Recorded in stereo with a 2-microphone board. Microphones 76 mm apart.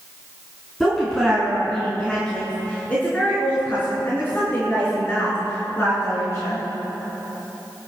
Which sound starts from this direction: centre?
A woman speaking, at 0.8 s.